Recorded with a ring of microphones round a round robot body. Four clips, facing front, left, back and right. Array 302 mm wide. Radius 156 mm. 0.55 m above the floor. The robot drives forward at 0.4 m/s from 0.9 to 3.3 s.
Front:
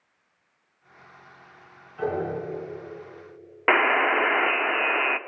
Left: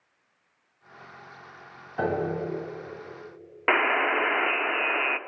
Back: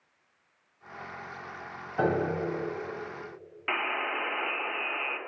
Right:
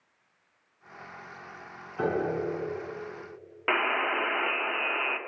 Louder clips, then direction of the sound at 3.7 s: Left 4 dB, front 11 dB; 20° left.